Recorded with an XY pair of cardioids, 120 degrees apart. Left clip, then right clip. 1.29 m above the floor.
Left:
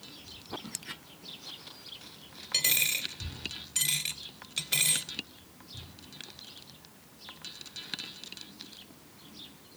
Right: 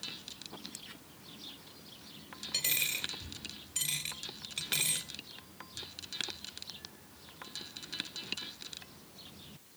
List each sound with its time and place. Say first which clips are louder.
2.5 s a dropped coin: left 5 dB; 30° left, 2.5 m